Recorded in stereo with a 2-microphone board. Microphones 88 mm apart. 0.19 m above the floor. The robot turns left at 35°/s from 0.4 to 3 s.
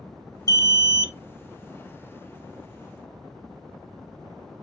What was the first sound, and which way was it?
An alarm, 40° left (ahead or behind).